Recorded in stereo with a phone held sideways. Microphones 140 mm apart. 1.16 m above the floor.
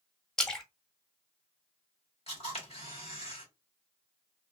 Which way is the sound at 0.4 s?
5° left (ahead or behind).